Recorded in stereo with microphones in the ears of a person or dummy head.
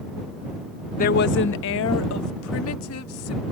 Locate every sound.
1.0 s a woman speaking: 40° left (ahead or behind); by 3.4 s 75° left (ahead or behind)